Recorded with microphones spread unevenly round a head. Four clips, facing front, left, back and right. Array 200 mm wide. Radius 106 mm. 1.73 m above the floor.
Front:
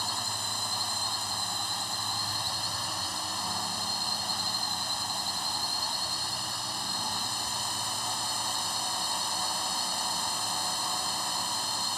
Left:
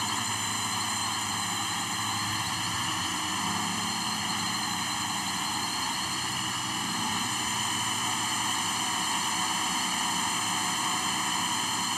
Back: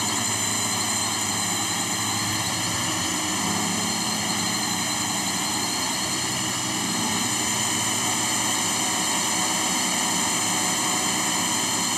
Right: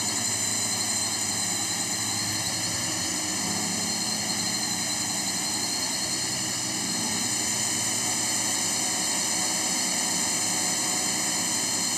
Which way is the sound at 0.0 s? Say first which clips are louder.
Left 2 dB, back 7 dB; straight behind.